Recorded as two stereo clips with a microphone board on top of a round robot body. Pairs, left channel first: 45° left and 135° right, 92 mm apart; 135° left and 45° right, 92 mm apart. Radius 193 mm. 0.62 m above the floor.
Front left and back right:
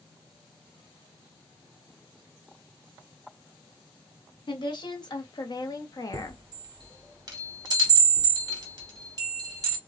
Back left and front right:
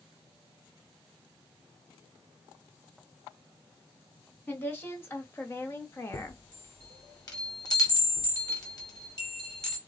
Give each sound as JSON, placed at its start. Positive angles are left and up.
{"t": 4.5, "sound": "a woman speaking", "azimuth_deg": 70, "distance_m": 2.0}
{"t": 6.1, "sound": "a chime", "azimuth_deg": 180, "distance_m": 2.5}